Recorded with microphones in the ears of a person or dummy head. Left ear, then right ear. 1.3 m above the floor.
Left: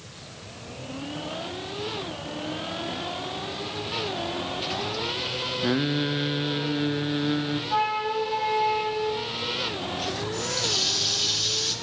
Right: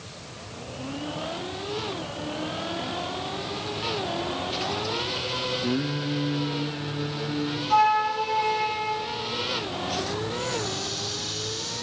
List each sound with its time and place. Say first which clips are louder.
5.6 s singing: left 3 dB; 40° left (ahead or behind), 0.9 m
7.7 s a flute: right 5 dB; 75° right (ahead or behind), 7 m
10.3 s a running tap: left 3 dB; 50° left (ahead or behind), 2.5 m